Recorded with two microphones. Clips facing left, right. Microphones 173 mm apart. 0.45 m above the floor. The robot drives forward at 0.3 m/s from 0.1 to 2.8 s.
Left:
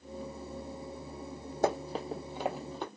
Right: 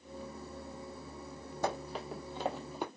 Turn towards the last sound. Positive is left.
turn(degrees=-15)  # may be behind; listen again after turning